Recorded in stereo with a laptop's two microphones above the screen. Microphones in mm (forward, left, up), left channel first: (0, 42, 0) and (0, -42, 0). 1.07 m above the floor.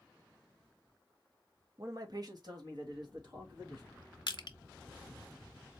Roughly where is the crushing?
Left.